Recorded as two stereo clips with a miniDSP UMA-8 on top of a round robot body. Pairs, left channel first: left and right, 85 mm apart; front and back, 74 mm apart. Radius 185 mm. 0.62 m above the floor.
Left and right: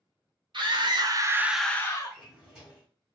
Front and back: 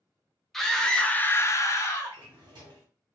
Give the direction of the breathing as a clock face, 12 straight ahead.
No breathing in this recording.